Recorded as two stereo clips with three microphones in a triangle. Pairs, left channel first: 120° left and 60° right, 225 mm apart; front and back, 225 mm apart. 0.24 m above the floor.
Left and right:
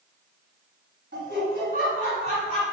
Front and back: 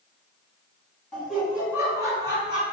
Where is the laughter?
85° right, 1.8 m; by 2.6 s 120° right, 2.5 m.